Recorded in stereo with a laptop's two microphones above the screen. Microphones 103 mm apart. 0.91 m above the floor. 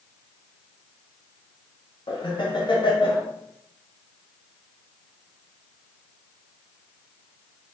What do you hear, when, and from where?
2.1 s laughter: 50° left (ahead or behind), 0.8 m